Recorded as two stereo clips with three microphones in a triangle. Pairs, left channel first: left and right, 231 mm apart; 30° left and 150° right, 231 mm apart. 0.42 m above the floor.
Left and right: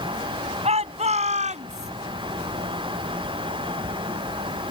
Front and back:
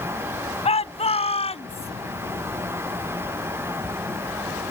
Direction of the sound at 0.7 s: 30° right.